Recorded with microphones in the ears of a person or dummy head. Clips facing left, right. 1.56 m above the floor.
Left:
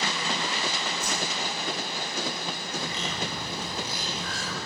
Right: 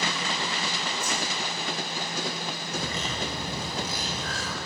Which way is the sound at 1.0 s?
40° left (ahead or behind).